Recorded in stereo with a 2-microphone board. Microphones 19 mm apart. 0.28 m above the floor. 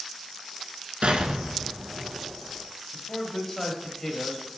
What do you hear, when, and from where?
1.0 s an explosion: 80° right, 1.0 m
2.9 s a man speaking: 20° left (ahead or behind), 1.1 m